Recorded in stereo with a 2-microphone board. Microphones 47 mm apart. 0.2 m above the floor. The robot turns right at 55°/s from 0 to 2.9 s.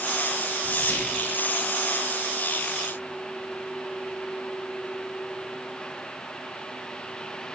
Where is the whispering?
40° left, 2.5 m; by 1.2 s 70° left, 2.5 m.